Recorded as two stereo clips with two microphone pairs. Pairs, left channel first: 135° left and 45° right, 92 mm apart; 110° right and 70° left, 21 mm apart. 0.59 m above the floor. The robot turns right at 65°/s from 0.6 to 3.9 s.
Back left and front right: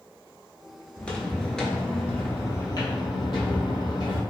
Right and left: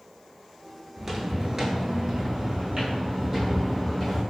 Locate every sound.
1.0 s footsteps: 80° left, 0.6 m; by 4.2 s 170° left, 1.7 m